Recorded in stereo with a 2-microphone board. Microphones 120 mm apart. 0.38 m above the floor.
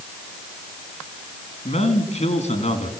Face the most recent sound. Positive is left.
turn(degrees=70)  # may be behind; listen again after turning